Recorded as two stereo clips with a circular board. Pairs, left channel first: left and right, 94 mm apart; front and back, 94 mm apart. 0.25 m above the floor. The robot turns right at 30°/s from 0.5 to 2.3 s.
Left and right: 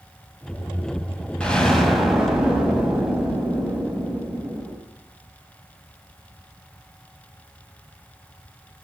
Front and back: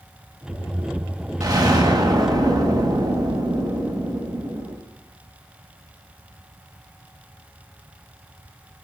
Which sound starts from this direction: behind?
An explosion, at 1.4 s.